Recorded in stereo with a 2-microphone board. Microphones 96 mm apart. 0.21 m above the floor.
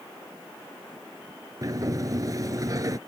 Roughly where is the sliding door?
Right.